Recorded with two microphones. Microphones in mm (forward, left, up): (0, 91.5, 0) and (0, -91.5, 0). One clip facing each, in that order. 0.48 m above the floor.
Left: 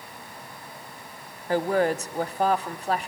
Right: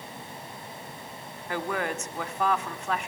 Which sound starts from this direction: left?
A woman speaking, at 1.5 s.